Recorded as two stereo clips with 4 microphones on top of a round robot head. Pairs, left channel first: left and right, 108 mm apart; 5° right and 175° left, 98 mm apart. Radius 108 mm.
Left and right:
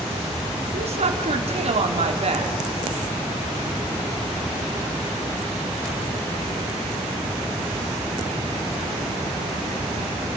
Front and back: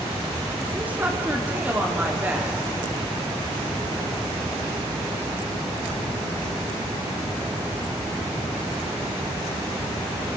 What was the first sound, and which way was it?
A woman speaking, 110° right.